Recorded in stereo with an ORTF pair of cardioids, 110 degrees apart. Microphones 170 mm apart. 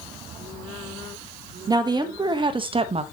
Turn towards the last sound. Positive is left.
turn(degrees=-40)